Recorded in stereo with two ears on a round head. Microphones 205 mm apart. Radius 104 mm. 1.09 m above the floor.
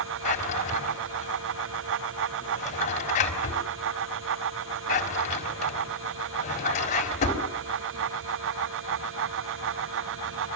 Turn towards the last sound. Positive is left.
turn(degrees=35)  # may be behind; listen again after turning